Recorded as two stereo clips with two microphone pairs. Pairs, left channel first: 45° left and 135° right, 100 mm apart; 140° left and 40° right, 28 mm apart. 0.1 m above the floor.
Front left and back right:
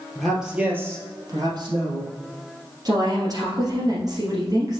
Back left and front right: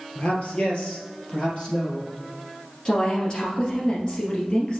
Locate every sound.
0.1 s a man speaking: 130° left, 2.5 m; by 2.1 s 165° right, 3.5 m
2.9 s a woman speaking: 175° right, 2.5 m